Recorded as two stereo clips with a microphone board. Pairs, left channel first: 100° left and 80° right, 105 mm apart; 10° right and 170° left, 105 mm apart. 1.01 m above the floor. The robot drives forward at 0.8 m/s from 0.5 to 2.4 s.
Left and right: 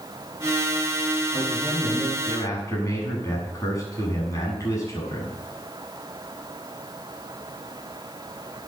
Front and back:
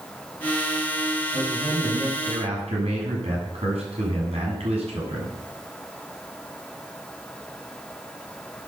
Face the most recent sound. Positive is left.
turn(degrees=160)